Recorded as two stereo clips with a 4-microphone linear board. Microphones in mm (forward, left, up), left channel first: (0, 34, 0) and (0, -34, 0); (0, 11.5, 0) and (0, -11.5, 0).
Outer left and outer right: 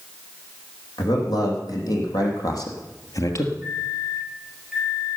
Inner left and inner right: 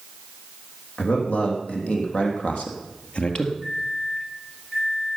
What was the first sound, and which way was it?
A man speaking, 75° left (ahead or behind).